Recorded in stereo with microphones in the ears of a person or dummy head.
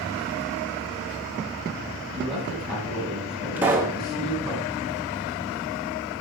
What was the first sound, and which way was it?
A man speaking, centre (ahead or behind).